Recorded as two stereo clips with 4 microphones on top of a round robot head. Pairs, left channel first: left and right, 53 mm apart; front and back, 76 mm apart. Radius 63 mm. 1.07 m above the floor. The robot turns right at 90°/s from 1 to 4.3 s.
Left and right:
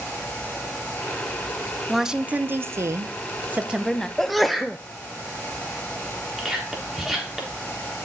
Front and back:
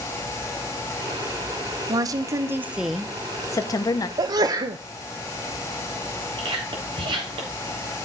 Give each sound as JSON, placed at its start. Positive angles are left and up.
{"t": 1.9, "sound": "a woman speaking", "azimuth_deg": 175, "distance_m": 0.7}
{"t": 4.2, "sound": "a sneeze", "azimuth_deg": 170, "distance_m": 0.6}
{"t": 6.4, "sound": "whispering", "azimuth_deg": 180, "distance_m": 4.0}